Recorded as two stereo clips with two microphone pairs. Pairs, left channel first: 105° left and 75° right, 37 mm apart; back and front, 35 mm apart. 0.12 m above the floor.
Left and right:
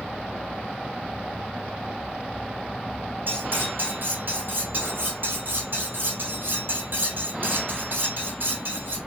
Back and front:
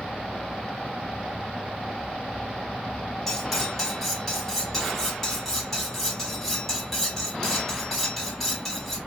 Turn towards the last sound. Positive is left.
turn(degrees=-100)